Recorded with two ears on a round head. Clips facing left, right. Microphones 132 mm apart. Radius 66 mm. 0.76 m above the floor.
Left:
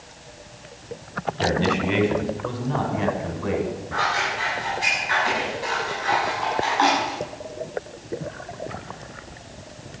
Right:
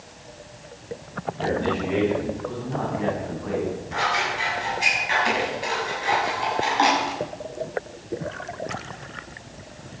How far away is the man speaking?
About 5 m.